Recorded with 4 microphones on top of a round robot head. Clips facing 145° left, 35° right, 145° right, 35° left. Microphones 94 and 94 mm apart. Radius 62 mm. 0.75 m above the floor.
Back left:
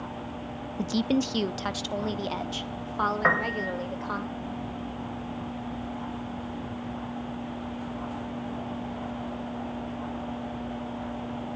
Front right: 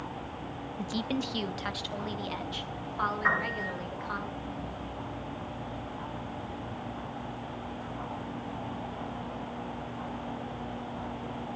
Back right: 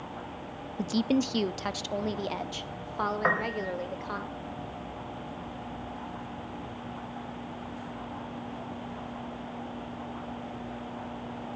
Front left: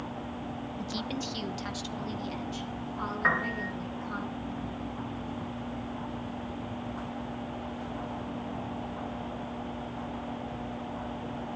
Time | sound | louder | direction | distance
0.8 | a woman speaking | back left 7 dB, back right 11 dB | 170° right | 0.6 m
3.2 | a piano | back left 4 dB, back right 1 dB | 165° left | 4.5 m